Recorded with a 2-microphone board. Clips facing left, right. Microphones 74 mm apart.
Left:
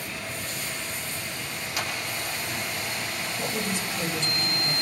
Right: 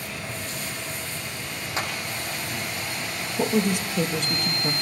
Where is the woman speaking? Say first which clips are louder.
Right 9 dB; 65° right (ahead or behind), 4 m.